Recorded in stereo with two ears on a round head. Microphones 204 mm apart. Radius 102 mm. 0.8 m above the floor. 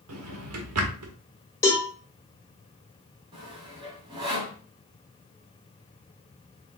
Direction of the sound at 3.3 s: 20° right (ahead or behind).